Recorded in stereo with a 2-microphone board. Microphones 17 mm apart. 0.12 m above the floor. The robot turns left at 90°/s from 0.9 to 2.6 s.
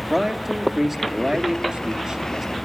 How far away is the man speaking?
About 3 m.